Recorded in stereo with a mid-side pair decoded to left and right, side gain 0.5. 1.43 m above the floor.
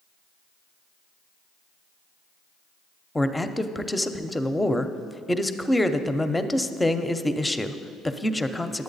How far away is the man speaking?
About 0.6 m.